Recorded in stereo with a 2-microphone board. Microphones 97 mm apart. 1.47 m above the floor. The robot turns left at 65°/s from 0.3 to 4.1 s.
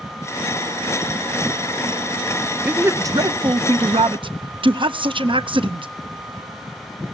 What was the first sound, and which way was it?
A man speaking, 15° right.